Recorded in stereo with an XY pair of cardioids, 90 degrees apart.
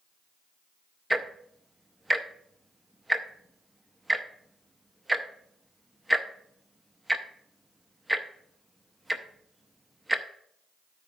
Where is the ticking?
15° right, 0.7 m.